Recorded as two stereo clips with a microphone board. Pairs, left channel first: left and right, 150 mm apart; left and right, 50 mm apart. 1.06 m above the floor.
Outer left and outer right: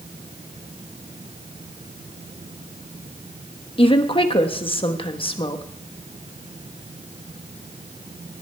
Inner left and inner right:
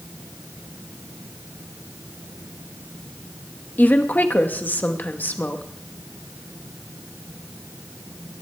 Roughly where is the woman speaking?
Left.